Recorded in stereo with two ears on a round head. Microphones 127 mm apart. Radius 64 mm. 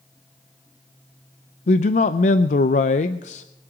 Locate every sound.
1.7 s a man speaking: 55° left (ahead or behind), 0.5 m